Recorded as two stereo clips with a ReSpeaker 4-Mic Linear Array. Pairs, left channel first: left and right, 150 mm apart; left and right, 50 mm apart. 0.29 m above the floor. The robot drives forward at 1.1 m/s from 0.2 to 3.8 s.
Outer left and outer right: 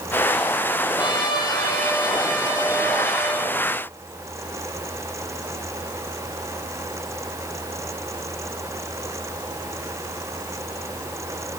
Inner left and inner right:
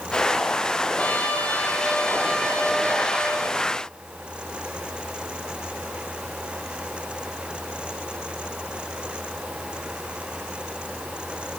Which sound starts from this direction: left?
A trumpet, at 1.0 s.